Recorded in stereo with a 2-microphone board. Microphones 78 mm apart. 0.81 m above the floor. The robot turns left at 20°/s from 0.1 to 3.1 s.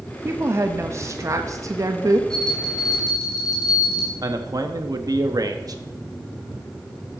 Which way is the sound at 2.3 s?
15° left (ahead or behind).